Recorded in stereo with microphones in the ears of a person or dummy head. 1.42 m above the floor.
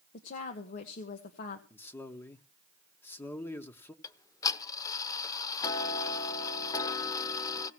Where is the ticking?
25° left (ahead or behind), 0.8 m.